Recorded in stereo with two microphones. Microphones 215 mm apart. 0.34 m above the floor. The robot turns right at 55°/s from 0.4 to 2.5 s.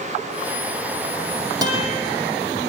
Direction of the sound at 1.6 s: 20° right (ahead or behind).